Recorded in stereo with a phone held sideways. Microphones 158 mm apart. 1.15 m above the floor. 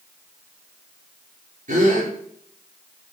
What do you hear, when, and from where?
1.7 s a gasp: 55° right (ahead or behind), 5 m